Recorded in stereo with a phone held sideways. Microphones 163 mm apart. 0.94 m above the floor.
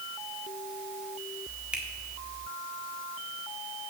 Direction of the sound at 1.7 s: 5° right (ahead or behind).